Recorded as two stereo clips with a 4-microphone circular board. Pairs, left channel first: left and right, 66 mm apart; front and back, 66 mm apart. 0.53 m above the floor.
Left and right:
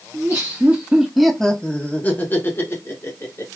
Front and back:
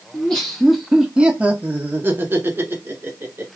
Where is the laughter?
70° right, 0.8 m; by 3.5 s 130° left, 1.5 m.